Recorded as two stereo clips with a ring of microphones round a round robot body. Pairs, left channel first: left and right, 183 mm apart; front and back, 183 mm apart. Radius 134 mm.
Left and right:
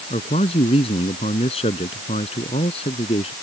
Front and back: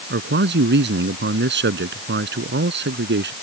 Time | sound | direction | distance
0.1 | a man speaking | 160° left | ?